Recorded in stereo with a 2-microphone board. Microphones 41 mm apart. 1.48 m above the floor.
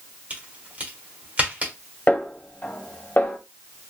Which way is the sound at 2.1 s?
55° left (ahead or behind).